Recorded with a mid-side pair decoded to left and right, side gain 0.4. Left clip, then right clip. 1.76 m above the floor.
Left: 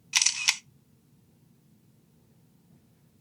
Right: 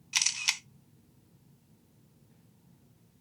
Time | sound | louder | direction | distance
0.1 | a camera shutter | left 4 dB | 30° left | 0.7 m